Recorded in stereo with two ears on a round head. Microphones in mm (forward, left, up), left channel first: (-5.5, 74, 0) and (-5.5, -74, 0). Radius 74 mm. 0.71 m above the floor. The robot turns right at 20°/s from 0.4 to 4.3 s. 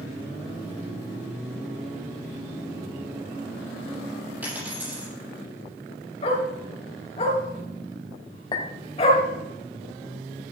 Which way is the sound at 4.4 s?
10° right (ahead or behind).